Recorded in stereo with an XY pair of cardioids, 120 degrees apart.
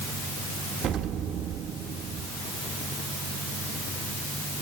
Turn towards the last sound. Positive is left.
turn(degrees=-60)